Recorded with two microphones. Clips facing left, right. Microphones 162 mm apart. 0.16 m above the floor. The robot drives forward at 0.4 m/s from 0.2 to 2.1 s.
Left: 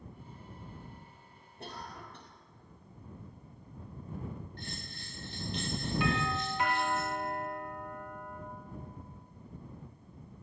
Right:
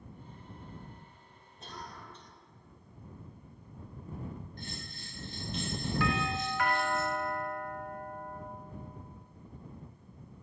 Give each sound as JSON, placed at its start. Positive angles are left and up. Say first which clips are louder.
{"t": 1.6, "sound": "a cough", "louder": "left 2 dB", "side_deg": 60, "distance_m": 3.5}
{"t": 4.6, "sound": "a bell", "louder": "even", "side_deg": 65, "distance_m": 7.5}
{"t": 6.0, "sound": "a doorbell", "louder": "even", "side_deg": 20, "distance_m": 3.0}